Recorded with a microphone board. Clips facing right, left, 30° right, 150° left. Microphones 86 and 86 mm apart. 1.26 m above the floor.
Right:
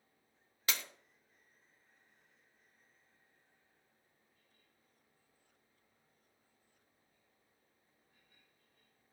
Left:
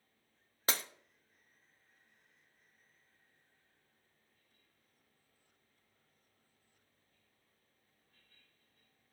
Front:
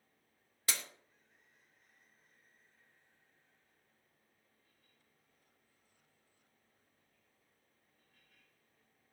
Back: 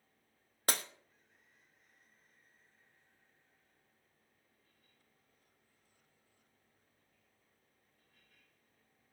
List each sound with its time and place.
0.7 s breaking glass: 130° left, 0.7 m